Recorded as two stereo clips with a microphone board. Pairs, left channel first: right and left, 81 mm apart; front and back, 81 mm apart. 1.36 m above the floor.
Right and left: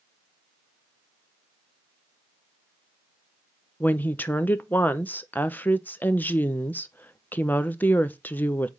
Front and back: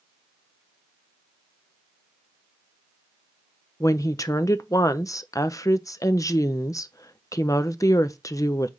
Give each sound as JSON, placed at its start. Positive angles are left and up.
{"t": 3.8, "sound": "a woman speaking", "azimuth_deg": -30, "distance_m": 0.6}